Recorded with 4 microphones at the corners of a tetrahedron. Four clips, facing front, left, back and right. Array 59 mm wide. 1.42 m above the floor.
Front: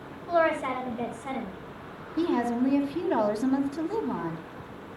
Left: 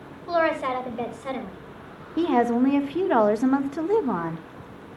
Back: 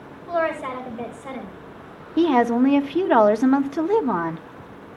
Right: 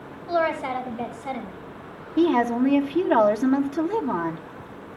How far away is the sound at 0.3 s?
About 5.5 m.